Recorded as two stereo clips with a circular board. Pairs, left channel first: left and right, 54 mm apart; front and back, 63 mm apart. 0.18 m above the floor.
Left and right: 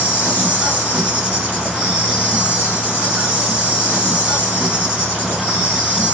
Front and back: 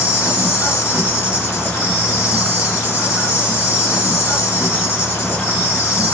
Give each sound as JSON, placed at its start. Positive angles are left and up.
{"t": 0.0, "sound": "an insect", "azimuth_deg": -150, "distance_m": 2.5}